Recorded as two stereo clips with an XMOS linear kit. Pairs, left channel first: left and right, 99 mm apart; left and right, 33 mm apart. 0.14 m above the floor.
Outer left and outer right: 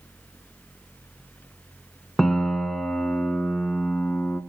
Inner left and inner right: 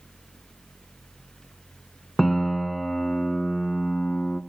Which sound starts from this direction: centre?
A piano, at 2.2 s.